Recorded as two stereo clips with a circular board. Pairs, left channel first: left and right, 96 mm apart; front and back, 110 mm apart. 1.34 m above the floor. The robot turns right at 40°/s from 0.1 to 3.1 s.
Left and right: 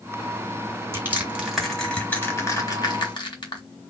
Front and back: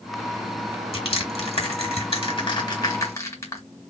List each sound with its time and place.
0.9 s crushing: 25° right, 2 m; by 3.6 s 60° left, 2 m